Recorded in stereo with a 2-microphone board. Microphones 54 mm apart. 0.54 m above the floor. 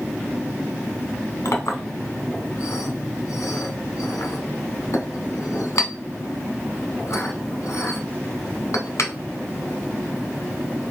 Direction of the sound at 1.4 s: 70° left (ahead or behind).